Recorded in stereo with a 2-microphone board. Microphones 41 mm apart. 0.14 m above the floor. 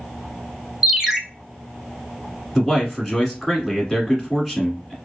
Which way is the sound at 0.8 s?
5° right (ahead or behind).